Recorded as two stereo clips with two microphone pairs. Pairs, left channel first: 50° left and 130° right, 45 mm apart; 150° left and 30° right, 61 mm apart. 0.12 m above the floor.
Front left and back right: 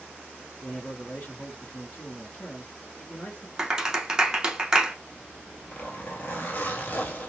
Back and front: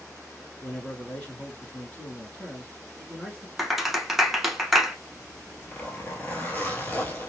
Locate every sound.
0.6 s a man speaking: 90° left, 2.5 m
3.6 s a clap: 105° right, 0.8 m
5.1 s a zipper: 95° left, 1.2 m